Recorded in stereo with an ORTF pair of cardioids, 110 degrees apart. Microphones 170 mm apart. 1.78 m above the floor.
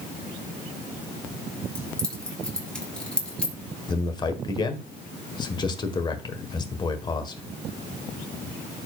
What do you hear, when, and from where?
1.8 s keys jangling: 5° left, 3 m
3.9 s a man speaking: 25° left, 1.6 m